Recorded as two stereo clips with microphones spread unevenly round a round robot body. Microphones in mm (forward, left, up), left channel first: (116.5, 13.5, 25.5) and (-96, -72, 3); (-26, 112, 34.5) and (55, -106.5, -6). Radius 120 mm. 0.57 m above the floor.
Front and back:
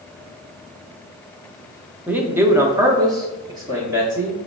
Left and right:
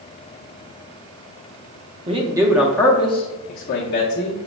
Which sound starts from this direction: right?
A man speaking, at 2.1 s.